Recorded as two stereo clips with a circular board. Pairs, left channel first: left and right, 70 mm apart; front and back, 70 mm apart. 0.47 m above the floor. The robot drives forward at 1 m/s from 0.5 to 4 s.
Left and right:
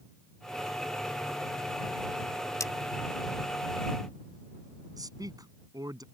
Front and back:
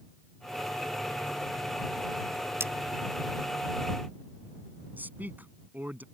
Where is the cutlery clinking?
130° left; by 2.7 s 135° left.